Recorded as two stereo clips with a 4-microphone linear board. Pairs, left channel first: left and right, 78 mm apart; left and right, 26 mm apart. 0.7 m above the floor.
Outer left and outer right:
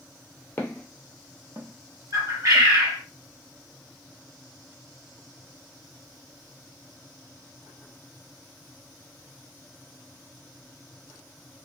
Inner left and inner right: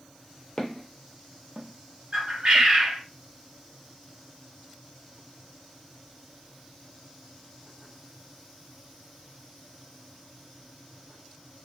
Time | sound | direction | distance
0.6 | footsteps | 30° left (ahead or behind) | 0.7 m
2.1 | a bird | 50° right (ahead or behind) | 1.0 m